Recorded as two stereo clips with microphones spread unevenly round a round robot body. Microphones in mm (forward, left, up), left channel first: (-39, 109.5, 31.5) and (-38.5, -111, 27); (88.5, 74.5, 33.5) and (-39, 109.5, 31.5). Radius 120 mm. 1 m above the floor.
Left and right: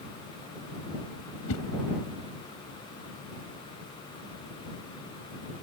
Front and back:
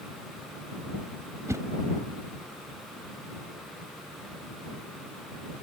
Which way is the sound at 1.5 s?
95° left.